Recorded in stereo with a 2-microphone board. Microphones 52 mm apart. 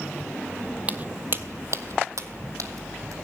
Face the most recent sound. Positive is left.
turn(degrees=-75)  # may be behind; listen again after turning